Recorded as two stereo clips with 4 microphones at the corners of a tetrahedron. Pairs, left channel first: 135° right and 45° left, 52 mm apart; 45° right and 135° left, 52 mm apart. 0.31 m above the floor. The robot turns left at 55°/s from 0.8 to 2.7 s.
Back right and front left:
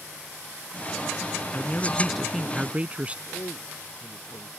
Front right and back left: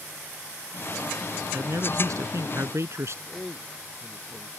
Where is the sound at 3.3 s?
120° right.